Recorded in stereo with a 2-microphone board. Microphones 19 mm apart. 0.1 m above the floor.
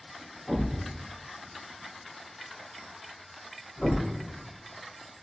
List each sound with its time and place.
0.5 s a thud: 45° left (ahead or behind), 1.8 m